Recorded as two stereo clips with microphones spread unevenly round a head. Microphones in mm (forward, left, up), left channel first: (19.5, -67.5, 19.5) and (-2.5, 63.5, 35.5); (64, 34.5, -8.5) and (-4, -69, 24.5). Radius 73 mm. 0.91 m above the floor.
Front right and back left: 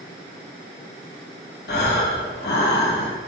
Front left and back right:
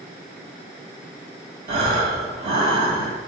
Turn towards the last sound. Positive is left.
turn(degrees=-90)